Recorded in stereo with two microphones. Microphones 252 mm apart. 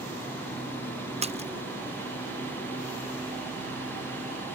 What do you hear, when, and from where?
1.2 s a splash: 25° right (ahead or behind)